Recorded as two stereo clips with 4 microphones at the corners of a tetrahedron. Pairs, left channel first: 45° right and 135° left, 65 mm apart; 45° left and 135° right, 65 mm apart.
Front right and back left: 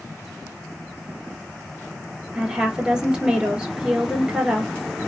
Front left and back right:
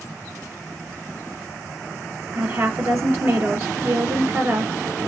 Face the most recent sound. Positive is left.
turn(degrees=-160)